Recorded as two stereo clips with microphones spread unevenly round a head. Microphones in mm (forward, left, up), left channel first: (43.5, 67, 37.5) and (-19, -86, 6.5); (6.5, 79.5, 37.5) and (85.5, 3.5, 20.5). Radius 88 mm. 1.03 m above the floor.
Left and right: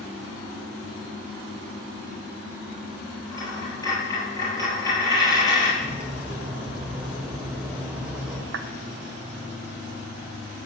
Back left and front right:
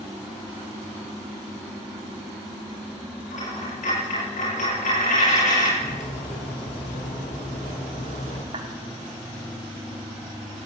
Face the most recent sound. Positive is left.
turn(degrees=-100)